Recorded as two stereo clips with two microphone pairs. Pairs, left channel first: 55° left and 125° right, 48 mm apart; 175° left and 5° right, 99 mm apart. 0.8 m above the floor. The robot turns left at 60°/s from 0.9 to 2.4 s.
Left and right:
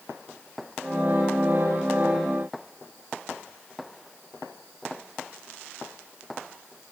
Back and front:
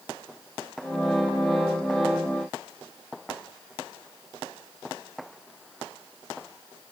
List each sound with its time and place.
Only background noise.